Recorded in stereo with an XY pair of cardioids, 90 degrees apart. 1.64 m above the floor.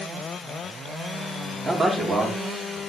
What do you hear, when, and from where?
1.6 s a man speaking: 45° right, 5 m; by 2.8 s 35° right, 5.5 m